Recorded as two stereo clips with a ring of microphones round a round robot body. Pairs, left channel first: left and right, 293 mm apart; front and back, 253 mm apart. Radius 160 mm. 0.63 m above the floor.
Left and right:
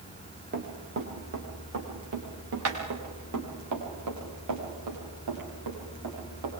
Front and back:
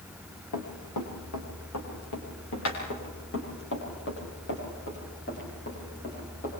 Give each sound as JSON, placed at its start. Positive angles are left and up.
{"t": 0.5, "sound": "running footsteps", "azimuth_deg": -35, "distance_m": 4.0}